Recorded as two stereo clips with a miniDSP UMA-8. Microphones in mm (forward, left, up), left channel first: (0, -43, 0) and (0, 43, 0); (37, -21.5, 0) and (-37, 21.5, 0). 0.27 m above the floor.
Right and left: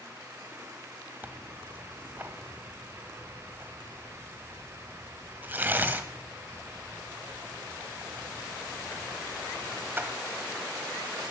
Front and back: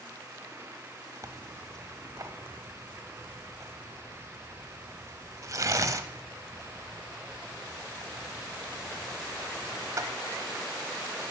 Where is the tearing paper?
145° left, 1.0 m.